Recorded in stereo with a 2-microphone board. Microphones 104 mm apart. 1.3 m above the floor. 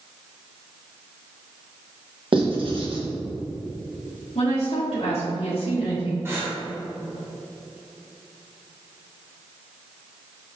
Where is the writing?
55° right (ahead or behind), 1.3 m.